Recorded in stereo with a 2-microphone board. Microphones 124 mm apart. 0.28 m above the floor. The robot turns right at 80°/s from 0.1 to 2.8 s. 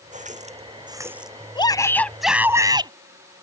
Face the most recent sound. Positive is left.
turn(degrees=-130)